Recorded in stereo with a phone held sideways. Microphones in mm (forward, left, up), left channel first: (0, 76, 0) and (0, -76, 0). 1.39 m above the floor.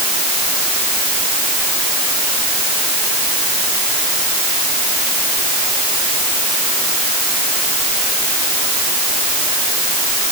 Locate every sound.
Only background noise.